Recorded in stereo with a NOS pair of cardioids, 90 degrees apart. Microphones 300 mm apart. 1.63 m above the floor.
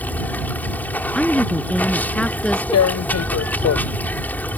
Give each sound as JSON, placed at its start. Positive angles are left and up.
{"t": 0.0, "sound": "running water", "azimuth_deg": 5}
{"t": 1.1, "sound": "a woman speaking", "azimuth_deg": 5}
{"t": 2.7, "sound": "tearing paper", "azimuth_deg": 60}